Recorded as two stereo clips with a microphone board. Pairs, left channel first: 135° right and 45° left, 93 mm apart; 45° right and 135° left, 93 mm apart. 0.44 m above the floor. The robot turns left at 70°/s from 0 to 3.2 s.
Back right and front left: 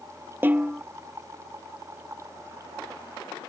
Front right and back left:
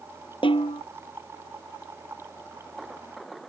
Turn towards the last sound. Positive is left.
turn(degrees=145)